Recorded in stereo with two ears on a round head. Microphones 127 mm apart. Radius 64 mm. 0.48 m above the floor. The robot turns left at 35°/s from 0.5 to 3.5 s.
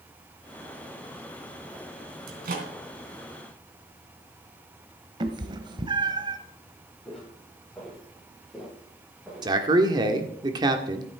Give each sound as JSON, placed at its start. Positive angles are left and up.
{"t": 2.3, "sound": "a microwave", "side_deg": -80, "distance_m": 3.5}
{"t": 5.2, "sound": "a cat meowing", "side_deg": -35, "distance_m": 1.2}
{"t": 7.0, "sound": "footsteps", "side_deg": 5, "distance_m": 7.5}
{"t": 9.4, "sound": "a man speaking", "side_deg": -30, "distance_m": 1.5}